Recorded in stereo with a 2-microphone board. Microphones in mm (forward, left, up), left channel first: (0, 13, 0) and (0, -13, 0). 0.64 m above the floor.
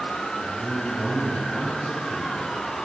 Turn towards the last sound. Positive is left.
turn(degrees=-5)  # may be behind; listen again after turning